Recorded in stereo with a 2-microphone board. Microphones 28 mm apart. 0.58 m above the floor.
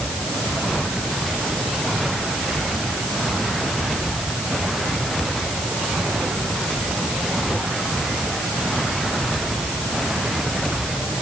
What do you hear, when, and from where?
Only background noise.